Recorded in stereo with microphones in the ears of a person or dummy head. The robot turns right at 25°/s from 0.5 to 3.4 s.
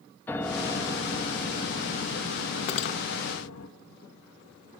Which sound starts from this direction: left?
Cutlery clinking, at 2.7 s.